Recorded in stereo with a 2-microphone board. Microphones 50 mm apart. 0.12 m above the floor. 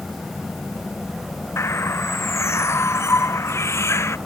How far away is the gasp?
I don't hear a gasp.